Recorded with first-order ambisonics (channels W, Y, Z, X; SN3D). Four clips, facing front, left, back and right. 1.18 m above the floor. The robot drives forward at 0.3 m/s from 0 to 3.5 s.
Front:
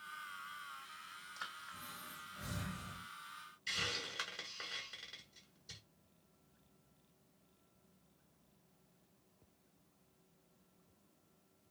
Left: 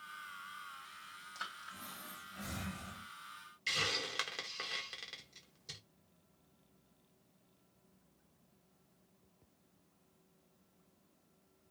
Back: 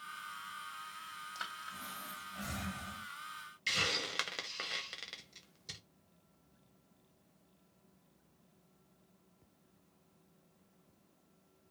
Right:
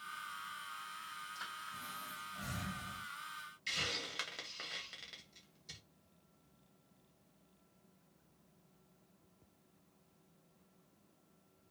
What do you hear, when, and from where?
1.4 s breathing: 165° left, 1.3 m; by 3.0 s 170° left, 1.8 m
3.7 s a hiss: 165° left, 0.7 m